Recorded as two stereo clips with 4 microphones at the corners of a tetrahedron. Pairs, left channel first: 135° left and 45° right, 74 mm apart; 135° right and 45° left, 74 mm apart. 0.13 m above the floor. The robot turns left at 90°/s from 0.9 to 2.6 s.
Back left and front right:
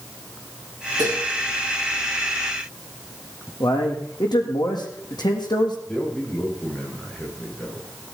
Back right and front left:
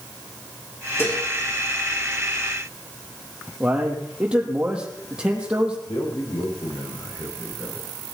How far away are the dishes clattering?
About 6.5 m.